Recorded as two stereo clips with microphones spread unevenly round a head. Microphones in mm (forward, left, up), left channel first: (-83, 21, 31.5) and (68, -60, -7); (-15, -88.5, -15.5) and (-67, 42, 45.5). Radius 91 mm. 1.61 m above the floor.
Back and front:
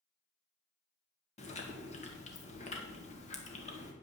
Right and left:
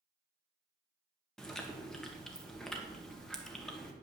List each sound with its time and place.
1.4 s chewing: 160° right, 1.9 m